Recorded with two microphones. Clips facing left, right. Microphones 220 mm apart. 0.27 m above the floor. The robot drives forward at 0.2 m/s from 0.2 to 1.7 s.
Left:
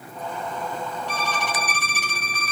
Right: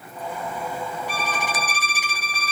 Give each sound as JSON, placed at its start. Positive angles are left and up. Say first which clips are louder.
{"t": 1.1, "sound": "a violin", "louder": "even", "side_deg": -10, "distance_m": 1.3}